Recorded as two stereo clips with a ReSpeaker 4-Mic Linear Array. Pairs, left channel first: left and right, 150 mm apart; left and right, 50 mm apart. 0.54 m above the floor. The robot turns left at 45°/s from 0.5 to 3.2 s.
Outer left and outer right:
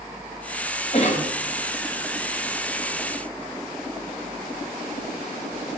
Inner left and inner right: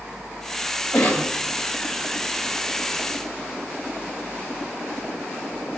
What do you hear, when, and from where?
0.9 s a cough: 40° left (ahead or behind), 3 m; by 1.3 s 55° left (ahead or behind), 3 m